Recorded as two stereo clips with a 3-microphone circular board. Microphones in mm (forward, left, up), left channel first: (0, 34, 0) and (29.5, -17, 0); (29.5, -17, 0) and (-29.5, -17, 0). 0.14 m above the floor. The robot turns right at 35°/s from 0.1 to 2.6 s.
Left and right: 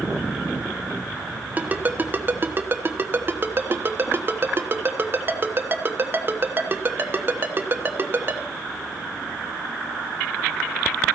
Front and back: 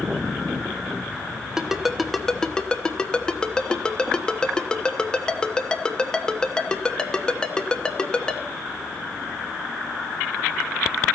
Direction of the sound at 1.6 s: 105° right.